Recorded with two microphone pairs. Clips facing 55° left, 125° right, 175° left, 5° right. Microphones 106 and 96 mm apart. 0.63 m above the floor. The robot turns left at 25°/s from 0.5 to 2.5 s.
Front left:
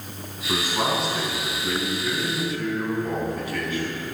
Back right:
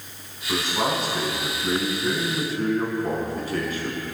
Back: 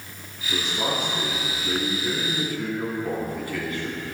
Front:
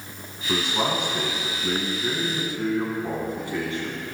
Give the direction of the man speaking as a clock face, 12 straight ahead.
1 o'clock.